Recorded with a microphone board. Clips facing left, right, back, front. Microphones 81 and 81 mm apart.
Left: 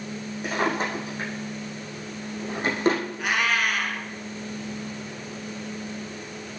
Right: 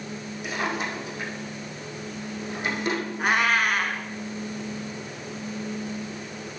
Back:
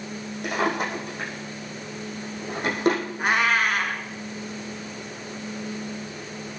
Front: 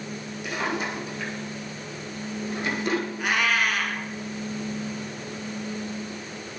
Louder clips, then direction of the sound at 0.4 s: Left 3 dB, back 4 dB; 140° left.